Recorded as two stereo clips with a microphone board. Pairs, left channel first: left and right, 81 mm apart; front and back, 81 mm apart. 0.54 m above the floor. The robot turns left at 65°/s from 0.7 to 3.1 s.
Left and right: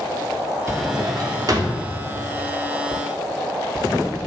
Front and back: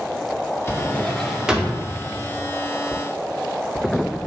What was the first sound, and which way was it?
A drawer, 50° right.